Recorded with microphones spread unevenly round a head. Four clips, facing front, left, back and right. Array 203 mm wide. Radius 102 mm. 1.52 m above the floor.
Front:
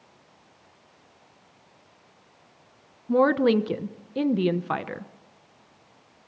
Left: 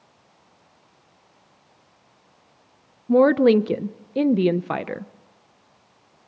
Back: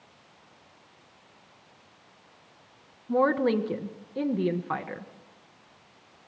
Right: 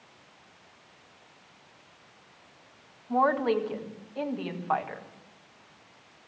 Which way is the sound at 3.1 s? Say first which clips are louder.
Left 9 dB, front 4 dB; 70° left.